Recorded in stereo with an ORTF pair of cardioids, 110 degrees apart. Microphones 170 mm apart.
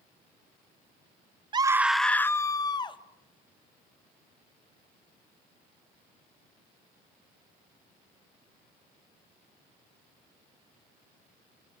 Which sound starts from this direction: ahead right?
A scream, at 1.5 s.